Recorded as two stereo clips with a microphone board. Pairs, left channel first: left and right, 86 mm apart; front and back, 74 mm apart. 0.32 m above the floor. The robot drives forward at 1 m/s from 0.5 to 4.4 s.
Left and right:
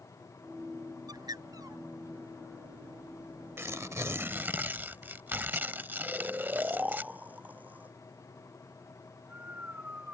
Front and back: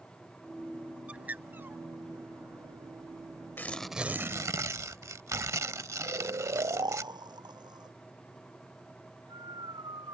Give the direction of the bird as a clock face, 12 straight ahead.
4 o'clock.